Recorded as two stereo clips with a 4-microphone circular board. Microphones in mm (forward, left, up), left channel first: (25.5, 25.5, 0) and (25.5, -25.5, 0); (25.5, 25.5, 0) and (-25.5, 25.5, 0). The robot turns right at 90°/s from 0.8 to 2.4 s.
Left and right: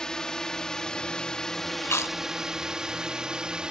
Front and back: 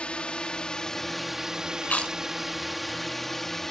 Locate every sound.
0.0 s a drone: 35° left; by 3.7 s 65° right
1.8 s chewing: 55° left; by 2.2 s 85° left